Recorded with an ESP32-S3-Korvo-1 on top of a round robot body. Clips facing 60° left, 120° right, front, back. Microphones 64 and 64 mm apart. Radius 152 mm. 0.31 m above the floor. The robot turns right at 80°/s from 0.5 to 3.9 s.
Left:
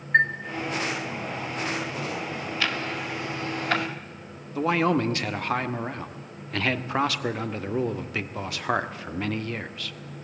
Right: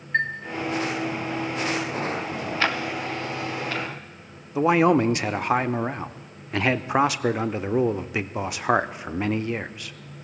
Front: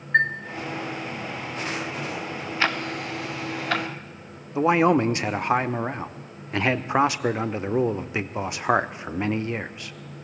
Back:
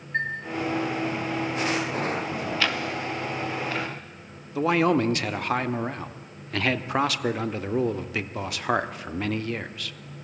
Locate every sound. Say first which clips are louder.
0.1 s a chime: left 4 dB, front 7 dB; 5° left, 0.9 m
2.6 s ticking: right 4 dB, front 4 dB; 60° right, 0.9 m; by 3.9 s 40° left, 0.9 m
4.5 s a man speaking: right 5 dB, front 3 dB; 60° right, 1.1 m